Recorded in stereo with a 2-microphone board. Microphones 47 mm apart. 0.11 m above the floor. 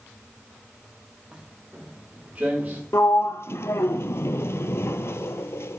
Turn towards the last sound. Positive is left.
turn(degrees=65)  # may be behind; listen again after turning